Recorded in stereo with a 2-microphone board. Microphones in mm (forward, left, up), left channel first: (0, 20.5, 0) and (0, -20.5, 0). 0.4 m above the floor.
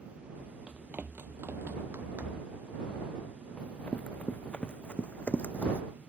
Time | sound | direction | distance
0.7 | running footsteps | 30° right (ahead or behind) | ?
3.6 | running footsteps | 30° left (ahead or behind) | ?